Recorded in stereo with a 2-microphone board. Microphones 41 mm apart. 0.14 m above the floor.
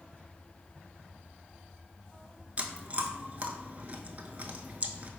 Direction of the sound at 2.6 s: 40° right (ahead or behind).